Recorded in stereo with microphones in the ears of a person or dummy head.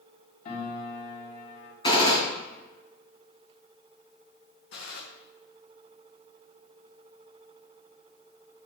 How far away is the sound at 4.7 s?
About 1.7 m.